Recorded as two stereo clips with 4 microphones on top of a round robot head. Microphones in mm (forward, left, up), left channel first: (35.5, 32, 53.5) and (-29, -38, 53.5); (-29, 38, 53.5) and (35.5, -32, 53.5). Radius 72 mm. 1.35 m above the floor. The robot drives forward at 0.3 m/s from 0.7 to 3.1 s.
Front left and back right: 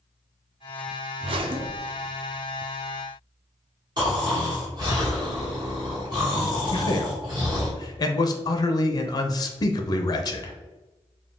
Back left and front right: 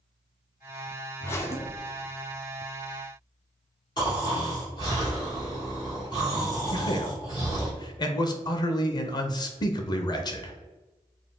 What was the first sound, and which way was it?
A zipper, 160° right.